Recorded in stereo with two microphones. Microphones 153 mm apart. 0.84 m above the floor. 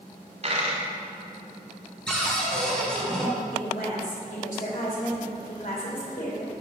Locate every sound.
0.4 s a dropped coin: 50° right (ahead or behind), 1.5 m
2.1 s a cupboard door: 5° left (ahead or behind), 2 m
3.5 s a woman speaking: 65° left (ahead or behind), 2.5 m